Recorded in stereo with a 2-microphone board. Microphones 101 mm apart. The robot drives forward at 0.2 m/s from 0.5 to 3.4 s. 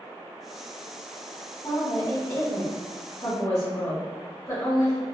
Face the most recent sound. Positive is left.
turn(degrees=30)  # may be behind; listen again after turning